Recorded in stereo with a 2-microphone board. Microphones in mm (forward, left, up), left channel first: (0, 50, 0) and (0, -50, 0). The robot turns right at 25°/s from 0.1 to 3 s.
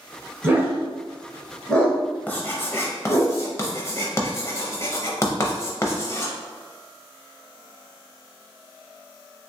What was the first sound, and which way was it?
A dog barking, 25° right (ahead or behind).